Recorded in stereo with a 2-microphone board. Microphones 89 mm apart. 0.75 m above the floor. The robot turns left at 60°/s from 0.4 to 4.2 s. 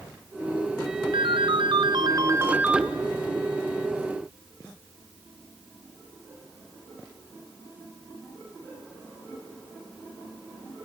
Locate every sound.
1.1 s a ringtone: 70° right, 1.1 m; by 2.9 s 175° right, 1.1 m